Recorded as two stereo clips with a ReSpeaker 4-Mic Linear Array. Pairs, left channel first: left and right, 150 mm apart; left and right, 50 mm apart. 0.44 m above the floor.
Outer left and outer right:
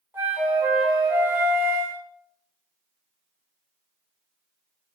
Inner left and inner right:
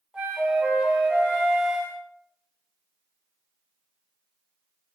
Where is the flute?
15° right (ahead or behind), 0.7 m.